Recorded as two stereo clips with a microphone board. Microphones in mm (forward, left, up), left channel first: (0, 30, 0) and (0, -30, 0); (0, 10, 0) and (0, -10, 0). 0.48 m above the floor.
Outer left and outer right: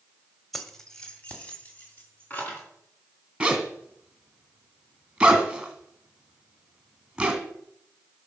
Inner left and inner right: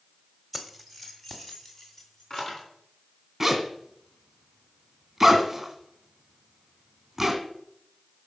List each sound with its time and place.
0.5 s keys jangling: 5° left (ahead or behind), 1.4 m; by 2.7 s 35° left (ahead or behind), 3.5 m
3.4 s a zipper: 15° right (ahead or behind), 2.0 m